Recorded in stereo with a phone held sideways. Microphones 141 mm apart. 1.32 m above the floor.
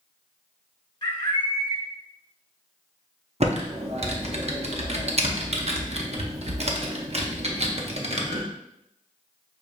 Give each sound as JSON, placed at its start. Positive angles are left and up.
{"t": 1.0, "sound": "a bird", "side_deg": 35, "distance_m": 1.1}
{"t": 3.4, "sound": "typing on a keyboard", "side_deg": -50, "distance_m": 0.6}